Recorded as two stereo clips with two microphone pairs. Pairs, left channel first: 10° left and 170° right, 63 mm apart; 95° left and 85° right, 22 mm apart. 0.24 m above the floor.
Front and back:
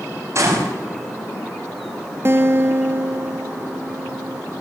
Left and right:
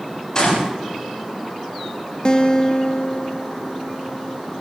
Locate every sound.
0.3 s a gunshot: 150° left, 8.5 m
2.2 s a guitar: 140° left, 1.5 m